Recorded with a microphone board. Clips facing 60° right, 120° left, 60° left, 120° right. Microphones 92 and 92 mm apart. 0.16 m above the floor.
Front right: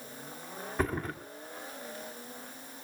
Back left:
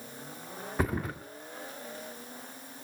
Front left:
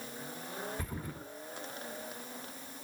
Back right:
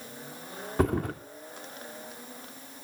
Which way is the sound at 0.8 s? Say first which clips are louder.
Back left 1 dB, back right 15 dB; 155° right.